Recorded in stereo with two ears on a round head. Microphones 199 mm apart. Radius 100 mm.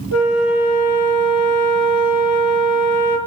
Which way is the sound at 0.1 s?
85° left.